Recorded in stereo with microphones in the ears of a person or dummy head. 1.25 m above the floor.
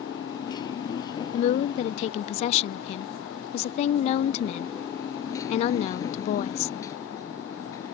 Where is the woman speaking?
45° left (ahead or behind).